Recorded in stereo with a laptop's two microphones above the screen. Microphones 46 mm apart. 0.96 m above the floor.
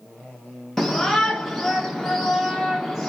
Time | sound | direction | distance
0.8 | a shout | 5° left (ahead or behind) | 0.6 m